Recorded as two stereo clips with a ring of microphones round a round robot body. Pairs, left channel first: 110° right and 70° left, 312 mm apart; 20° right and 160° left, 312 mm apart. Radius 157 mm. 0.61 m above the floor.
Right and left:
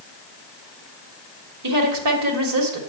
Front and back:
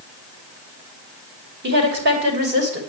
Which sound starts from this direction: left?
A woman speaking, at 1.6 s.